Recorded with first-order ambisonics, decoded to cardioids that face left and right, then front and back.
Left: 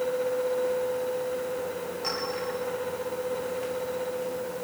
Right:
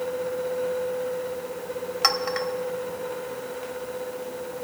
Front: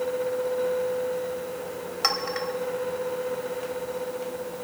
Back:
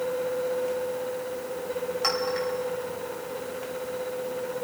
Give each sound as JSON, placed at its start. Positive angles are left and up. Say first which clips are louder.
{"t": 2.0, "sound": "a clink", "louder": "right 9 dB, front 2 dB", "azimuth_deg": -70, "distance_m": 1.7}